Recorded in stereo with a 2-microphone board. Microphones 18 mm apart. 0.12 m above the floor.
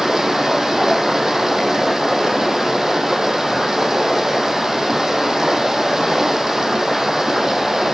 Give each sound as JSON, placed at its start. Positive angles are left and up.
{"t": 0.0, "sound": "running water", "side_deg": -30, "distance_m": 2.0}